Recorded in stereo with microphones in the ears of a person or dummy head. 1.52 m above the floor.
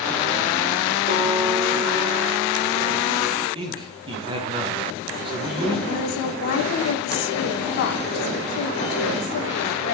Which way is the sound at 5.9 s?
65° left (ahead or behind).